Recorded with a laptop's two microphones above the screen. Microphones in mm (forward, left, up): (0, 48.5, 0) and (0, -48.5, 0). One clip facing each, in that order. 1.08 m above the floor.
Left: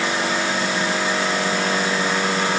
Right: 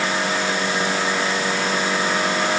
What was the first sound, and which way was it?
Only background noise.